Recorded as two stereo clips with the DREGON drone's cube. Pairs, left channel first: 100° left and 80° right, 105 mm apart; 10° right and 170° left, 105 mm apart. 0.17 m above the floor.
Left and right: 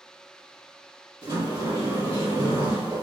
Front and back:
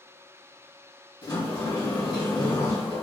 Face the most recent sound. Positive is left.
turn(degrees=-35)